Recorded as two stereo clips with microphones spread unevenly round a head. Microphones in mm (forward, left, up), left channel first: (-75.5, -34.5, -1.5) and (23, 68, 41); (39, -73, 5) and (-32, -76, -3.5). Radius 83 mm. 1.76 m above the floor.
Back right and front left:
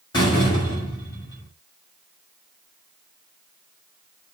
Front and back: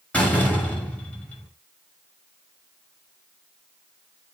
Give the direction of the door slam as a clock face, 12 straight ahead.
2 o'clock.